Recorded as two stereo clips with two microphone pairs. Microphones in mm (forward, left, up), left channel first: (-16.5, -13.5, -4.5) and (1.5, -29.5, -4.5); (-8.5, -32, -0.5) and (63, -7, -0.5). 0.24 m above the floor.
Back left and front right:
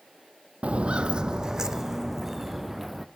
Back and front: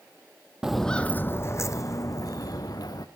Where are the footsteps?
60° right, 0.5 m; by 3.0 s 130° right, 1.8 m.